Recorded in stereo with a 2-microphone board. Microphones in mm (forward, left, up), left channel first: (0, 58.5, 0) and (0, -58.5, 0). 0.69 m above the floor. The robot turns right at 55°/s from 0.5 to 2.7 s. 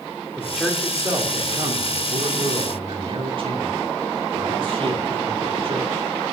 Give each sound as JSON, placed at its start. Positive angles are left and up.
{"t": 0.4, "sound": "a man speaking", "azimuth_deg": 180, "distance_m": 2.0}